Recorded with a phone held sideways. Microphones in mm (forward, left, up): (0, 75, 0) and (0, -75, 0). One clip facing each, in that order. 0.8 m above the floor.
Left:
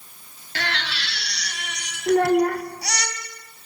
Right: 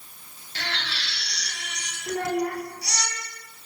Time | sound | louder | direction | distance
0.6 | a baby crying | left 5 dB | 85° left | 4 m
2.1 | a child speaking | left 9 dB | 75° left (ahead or behind) | 2 m